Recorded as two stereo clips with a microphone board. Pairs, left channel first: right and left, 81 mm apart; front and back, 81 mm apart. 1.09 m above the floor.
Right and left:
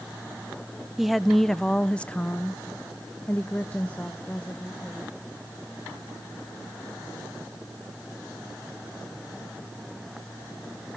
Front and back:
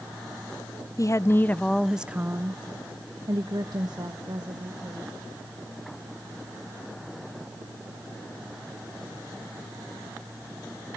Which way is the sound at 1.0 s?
5° left.